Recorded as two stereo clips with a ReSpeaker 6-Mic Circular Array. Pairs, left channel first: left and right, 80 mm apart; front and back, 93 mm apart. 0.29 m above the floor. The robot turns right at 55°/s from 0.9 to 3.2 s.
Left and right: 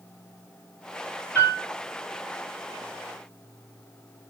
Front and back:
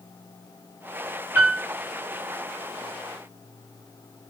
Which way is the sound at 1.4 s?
125° right.